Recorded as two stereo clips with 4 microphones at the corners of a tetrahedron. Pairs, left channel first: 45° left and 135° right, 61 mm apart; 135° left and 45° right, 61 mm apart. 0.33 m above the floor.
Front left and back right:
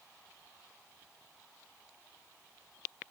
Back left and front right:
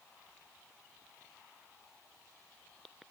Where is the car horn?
I don't hear a car horn.